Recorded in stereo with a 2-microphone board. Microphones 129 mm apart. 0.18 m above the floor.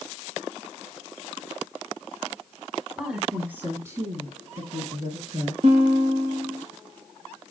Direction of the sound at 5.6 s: 50° right (ahead or behind).